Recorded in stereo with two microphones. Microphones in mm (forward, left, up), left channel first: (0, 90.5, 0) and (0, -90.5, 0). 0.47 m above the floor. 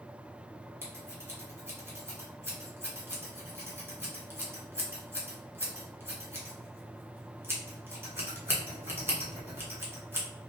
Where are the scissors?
15° right (ahead or behind), 1.1 m.